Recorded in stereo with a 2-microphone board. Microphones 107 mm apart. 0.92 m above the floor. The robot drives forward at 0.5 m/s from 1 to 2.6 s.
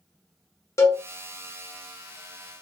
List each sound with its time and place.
0.8 s a cowbell: 30° left (ahead or behind), 0.6 m